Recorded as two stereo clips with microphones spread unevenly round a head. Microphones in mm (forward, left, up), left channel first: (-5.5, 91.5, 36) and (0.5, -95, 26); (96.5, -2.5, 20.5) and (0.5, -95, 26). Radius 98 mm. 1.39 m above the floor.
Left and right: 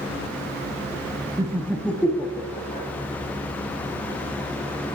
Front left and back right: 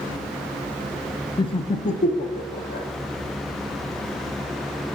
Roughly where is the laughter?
Ahead.